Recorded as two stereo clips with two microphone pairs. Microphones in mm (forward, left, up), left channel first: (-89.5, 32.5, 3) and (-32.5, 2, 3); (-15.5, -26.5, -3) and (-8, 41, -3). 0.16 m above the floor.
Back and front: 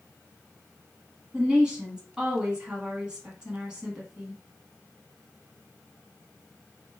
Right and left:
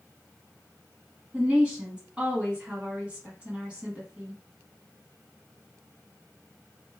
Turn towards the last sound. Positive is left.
turn(degrees=35)